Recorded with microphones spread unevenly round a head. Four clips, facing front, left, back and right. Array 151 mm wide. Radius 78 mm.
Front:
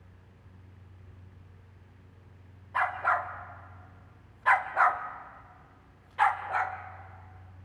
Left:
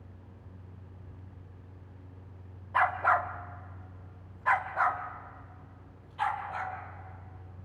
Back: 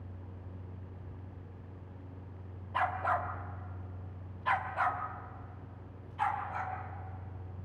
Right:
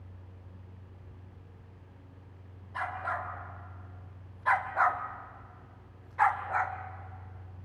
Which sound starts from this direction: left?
A dog barking, at 2.7 s.